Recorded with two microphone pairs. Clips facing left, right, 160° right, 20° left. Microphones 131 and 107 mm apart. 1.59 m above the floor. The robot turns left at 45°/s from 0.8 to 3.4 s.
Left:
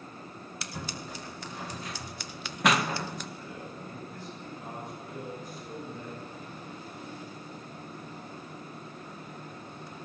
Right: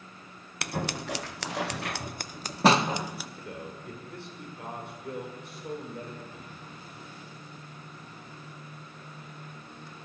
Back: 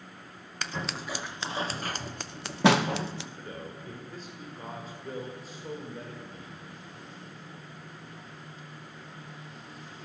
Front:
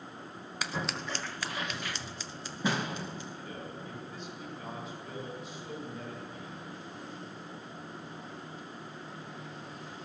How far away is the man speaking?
About 7 m.